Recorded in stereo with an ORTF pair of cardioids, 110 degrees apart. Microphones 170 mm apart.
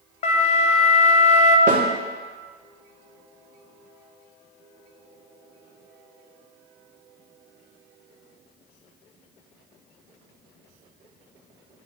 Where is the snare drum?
50° right, 1.9 m.